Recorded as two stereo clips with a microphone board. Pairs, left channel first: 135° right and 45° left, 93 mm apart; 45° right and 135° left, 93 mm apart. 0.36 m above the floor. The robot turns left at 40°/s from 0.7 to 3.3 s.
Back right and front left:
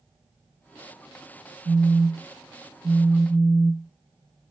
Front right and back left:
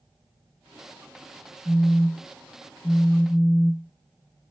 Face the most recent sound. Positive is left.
turn(degrees=-5)